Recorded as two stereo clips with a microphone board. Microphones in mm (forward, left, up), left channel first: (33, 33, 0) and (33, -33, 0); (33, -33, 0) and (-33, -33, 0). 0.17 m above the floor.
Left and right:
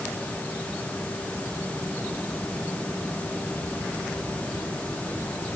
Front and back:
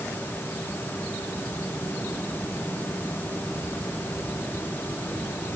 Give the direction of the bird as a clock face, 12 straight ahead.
No bird in this recording.